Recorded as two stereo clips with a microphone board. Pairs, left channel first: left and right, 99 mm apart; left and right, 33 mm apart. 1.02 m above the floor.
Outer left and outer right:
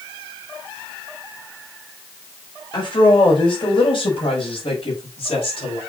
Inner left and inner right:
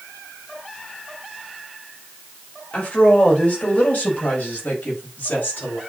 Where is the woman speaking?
50° left (ahead or behind), 4 m; by 5.8 s 70° left (ahead or behind), 6 m.